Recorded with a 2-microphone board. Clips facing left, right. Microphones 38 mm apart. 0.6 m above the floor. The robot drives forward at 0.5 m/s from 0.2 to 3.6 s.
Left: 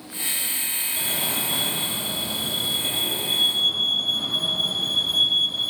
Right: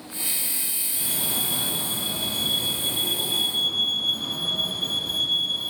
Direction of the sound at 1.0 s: 50° left (ahead or behind).